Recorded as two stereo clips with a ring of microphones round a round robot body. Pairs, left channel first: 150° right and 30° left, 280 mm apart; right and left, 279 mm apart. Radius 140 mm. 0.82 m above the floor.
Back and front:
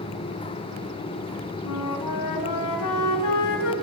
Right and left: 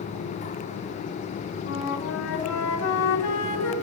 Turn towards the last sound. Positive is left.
turn(degrees=-130)